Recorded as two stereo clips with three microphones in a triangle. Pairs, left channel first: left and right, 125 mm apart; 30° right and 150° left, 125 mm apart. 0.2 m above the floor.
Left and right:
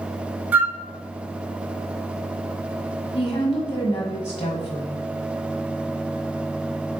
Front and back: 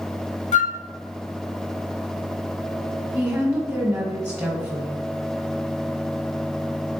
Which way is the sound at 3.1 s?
105° left.